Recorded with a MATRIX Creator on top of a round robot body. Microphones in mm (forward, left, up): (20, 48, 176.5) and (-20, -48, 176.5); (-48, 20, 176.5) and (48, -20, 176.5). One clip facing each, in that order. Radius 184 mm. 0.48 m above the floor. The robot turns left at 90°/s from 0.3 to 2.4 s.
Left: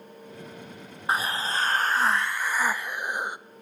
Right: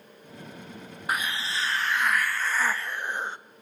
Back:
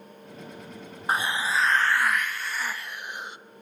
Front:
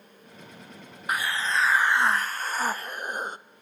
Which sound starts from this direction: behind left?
A hiss, at 1.1 s.